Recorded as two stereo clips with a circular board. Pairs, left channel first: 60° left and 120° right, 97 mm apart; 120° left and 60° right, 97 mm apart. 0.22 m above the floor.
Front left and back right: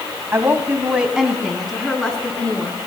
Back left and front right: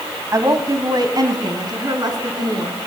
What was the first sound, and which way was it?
A woman speaking, 80° right.